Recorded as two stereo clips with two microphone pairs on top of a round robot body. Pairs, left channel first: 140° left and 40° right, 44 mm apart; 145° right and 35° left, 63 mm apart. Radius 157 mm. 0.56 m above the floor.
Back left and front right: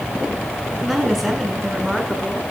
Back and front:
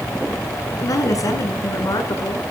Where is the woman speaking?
125° right, 7 m.